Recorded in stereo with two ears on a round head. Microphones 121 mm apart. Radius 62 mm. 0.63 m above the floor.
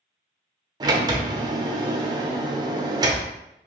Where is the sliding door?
30° right (ahead or behind), 0.5 m.